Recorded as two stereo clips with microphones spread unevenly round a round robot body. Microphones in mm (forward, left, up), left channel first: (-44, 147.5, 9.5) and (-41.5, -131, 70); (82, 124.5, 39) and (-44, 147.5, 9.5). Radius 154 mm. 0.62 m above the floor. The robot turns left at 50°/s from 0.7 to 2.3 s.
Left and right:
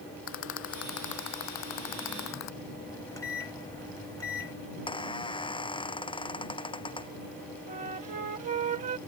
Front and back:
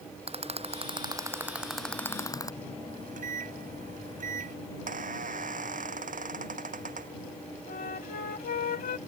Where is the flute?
20° right.